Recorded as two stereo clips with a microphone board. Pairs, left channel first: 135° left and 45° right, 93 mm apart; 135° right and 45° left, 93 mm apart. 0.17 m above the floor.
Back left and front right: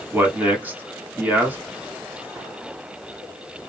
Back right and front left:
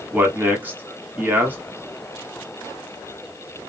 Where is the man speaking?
Straight ahead, 1.3 m.